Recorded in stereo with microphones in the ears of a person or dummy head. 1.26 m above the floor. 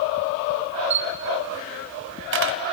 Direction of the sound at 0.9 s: 55° right (ahead or behind).